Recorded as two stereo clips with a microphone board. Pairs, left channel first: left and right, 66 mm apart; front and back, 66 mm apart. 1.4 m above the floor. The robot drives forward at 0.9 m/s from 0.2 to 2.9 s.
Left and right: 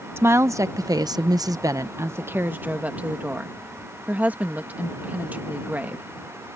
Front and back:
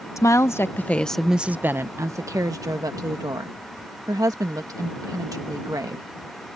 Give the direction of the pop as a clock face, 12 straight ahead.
No pop in this recording.